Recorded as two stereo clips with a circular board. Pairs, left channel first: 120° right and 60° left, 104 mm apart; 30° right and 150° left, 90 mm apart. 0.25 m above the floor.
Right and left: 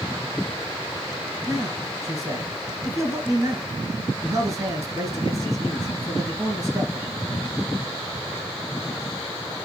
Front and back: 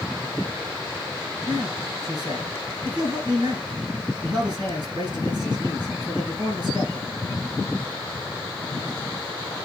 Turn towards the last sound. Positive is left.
turn(degrees=115)